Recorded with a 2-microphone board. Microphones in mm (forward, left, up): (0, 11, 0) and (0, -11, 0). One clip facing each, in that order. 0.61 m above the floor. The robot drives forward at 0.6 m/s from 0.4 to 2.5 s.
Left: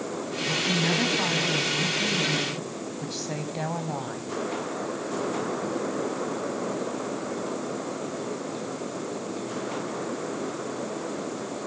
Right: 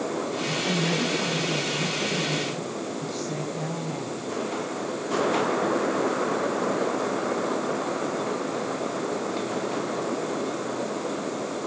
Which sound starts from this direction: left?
A woman speaking, at 0.7 s.